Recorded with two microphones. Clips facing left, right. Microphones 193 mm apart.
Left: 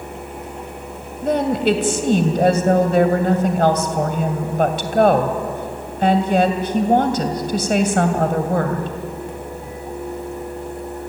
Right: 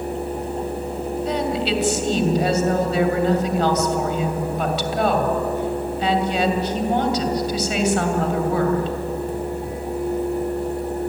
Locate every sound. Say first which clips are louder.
1.2 s a woman speaking: left 7 dB; 55° left (ahead or behind), 2.5 m